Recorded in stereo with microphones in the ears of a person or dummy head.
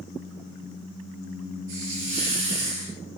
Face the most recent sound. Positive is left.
turn(degrees=-40)  # may be behind; listen again after turning